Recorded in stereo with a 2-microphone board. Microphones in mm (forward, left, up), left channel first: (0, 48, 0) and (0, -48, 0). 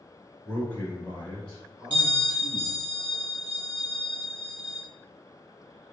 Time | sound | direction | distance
0.5 | a man speaking | 20° left (ahead or behind) | 1.6 m
1.9 | a bell | 15° left (ahead or behind) | 1.7 m